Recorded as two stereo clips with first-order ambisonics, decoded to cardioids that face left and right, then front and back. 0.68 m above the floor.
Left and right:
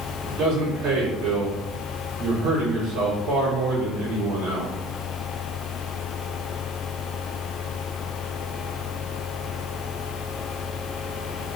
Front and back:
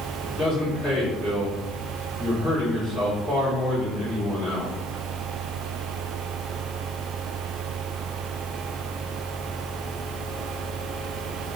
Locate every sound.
0.3 s a man speaking: 75° right, 2.0 m